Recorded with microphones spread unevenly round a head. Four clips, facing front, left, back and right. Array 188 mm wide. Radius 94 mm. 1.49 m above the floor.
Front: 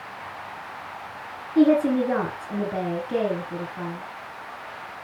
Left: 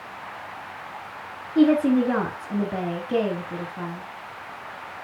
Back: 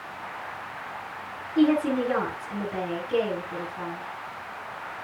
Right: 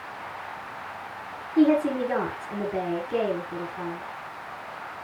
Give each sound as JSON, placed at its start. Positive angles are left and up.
{"t": 1.6, "sound": "a woman speaking", "azimuth_deg": 60, "distance_m": 8.5}